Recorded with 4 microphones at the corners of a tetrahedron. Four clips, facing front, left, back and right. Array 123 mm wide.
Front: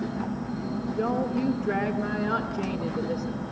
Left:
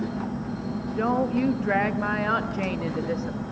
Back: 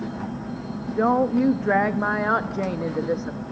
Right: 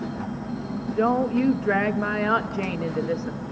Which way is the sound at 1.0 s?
Straight behind.